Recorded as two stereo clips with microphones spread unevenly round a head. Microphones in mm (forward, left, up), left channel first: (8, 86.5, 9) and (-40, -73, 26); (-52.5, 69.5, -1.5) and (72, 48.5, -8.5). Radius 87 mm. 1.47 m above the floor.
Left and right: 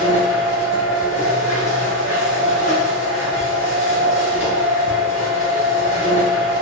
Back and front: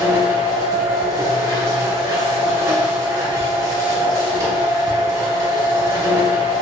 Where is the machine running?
40° left, 1.2 m.